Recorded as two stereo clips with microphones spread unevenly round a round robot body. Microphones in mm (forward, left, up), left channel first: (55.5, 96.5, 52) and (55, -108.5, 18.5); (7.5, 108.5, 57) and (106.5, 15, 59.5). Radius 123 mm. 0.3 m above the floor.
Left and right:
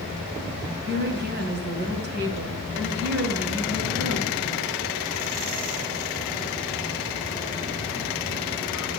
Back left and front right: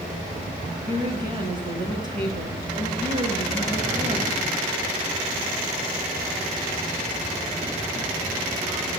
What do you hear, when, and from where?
0.9 s a woman speaking: 100° right, 2 m